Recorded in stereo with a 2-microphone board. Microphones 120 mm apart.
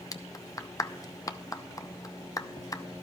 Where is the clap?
30° left (ahead or behind), 0.6 m.